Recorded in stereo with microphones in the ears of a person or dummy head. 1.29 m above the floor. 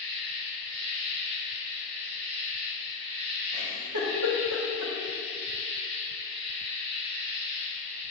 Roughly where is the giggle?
Right.